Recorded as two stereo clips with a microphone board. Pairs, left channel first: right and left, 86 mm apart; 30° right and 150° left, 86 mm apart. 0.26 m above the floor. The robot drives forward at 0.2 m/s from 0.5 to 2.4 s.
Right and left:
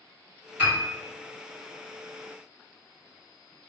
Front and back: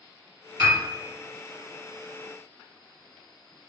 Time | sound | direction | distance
0.6 | a piano | 145° left | 2.0 m